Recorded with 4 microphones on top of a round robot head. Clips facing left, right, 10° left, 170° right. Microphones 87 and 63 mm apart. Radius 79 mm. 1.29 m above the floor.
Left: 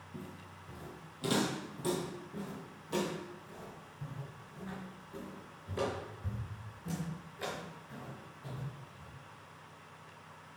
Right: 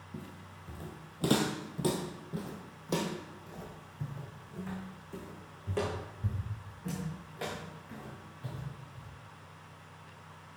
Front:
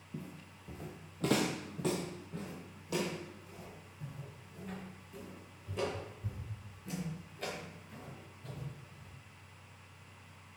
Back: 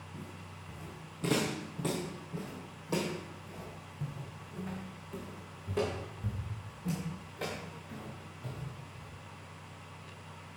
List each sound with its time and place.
0.1 s footsteps: 20° right, 1.8 m; by 9.1 s 130° right, 6 m